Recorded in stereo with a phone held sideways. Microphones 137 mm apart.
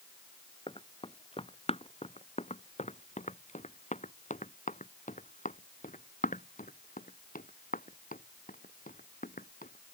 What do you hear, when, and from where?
0.7 s running footsteps: 40° left (ahead or behind); by 9.9 s 80° left